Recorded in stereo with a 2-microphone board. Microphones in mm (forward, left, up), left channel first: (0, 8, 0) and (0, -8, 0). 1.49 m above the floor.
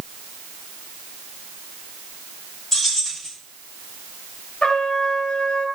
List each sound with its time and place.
2.7 s keys jangling: 20° left (ahead or behind), 5.5 m
4.6 s a trumpet: 65° left (ahead or behind), 1.5 m